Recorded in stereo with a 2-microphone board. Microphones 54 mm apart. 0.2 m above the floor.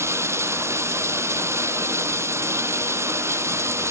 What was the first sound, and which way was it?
Running water, 55° right (ahead or behind).